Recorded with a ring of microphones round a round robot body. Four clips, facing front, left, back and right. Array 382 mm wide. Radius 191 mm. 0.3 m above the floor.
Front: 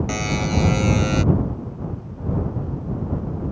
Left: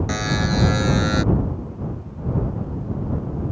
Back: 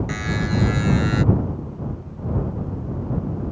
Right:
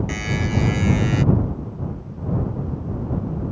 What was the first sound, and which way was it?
A buzzer, 40° left.